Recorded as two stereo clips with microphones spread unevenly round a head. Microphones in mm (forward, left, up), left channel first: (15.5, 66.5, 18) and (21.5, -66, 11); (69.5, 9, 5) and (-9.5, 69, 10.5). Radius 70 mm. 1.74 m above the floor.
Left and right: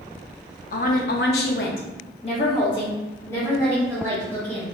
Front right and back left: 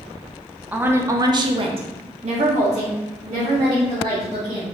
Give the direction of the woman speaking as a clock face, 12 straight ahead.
10 o'clock.